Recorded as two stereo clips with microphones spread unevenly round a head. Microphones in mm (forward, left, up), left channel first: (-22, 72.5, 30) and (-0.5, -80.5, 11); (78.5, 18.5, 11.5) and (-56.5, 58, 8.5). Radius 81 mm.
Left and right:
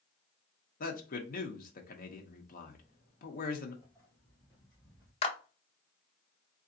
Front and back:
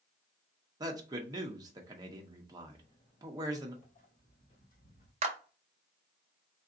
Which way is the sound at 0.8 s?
110° left.